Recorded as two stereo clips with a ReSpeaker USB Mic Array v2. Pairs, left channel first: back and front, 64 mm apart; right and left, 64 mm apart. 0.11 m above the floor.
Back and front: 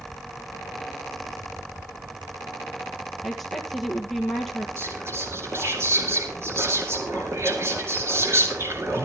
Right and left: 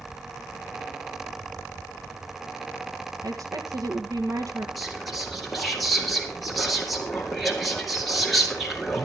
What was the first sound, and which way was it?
A woman speaking, 95° left.